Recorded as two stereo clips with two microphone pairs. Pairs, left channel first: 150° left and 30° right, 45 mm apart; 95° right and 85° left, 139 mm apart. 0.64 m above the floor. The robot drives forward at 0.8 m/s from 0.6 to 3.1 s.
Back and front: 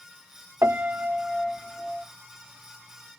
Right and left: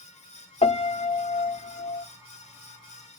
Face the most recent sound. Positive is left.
turn(degrees=-160)